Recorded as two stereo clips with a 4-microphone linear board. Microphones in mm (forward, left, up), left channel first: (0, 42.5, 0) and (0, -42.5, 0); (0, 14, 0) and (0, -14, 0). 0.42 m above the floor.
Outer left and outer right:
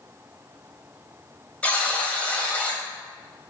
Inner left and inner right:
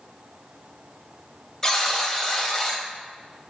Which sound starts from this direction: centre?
A buzzer, at 1.6 s.